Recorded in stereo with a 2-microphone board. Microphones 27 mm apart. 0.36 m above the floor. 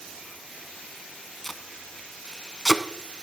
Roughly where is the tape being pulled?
Centre.